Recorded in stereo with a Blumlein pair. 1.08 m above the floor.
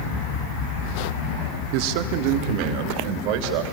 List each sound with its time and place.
1.7 s a man speaking: 45° right, 1.7 m